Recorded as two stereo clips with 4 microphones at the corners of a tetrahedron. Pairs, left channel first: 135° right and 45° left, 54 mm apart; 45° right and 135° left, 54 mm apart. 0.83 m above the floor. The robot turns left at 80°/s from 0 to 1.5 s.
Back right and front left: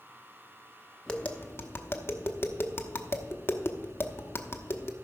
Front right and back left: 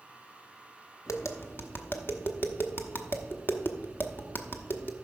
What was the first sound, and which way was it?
Tapping, 55° right.